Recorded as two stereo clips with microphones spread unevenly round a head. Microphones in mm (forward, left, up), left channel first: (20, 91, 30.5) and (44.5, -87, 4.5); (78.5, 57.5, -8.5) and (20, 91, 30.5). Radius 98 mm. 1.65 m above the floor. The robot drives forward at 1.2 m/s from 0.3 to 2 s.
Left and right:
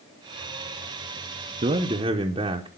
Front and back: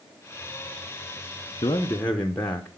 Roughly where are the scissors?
No scissors in this recording.